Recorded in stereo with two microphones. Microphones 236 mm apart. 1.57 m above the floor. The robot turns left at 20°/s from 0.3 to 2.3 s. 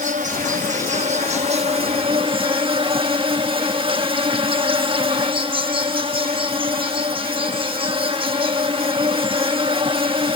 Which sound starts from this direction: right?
An insect, at 0.0 s.